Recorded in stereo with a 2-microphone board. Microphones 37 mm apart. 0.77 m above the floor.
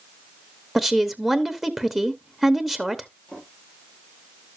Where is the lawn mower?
I don't hear a lawn mower.